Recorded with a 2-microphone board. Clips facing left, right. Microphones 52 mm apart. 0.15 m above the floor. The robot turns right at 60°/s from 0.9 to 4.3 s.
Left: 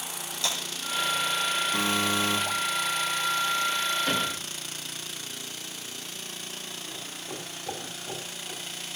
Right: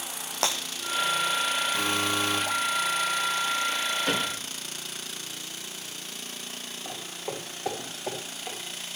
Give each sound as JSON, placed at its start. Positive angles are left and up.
{"t": 0.4, "sound": "breaking glass", "side_deg": -80, "distance_m": 3.5}
{"t": 1.7, "sound": "a buzzer", "azimuth_deg": 50, "distance_m": 7.5}
{"t": 4.1, "sound": "a cupboard door", "side_deg": -5, "distance_m": 7.5}
{"t": 6.8, "sound": "footsteps", "side_deg": -75, "distance_m": 7.0}